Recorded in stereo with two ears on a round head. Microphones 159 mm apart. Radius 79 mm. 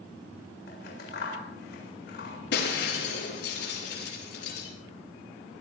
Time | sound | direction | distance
0.7 | scissors | 60° left (ahead or behind) | 7 m
2.5 | breaking glass | 65° left (ahead or behind) | 6 m